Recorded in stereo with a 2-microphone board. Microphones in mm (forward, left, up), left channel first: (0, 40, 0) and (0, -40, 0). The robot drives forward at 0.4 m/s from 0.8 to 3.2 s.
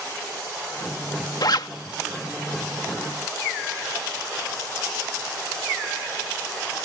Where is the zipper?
65° left (ahead or behind).